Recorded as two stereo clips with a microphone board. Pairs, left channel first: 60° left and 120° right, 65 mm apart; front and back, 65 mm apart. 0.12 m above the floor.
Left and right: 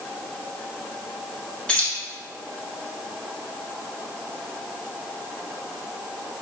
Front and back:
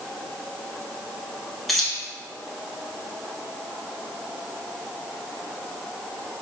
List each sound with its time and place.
1.7 s keys jangling: 85° left, 1.0 m